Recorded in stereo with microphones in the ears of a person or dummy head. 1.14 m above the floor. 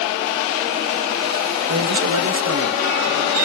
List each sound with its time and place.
1.7 s a man speaking: 75° right (ahead or behind), 1.1 m